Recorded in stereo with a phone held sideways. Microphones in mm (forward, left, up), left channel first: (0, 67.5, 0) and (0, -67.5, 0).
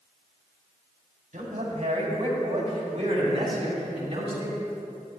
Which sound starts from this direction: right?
A man speaking, at 1.3 s.